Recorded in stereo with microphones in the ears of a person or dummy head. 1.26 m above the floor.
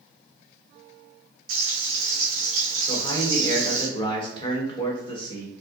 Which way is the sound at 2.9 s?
20° left (ahead or behind).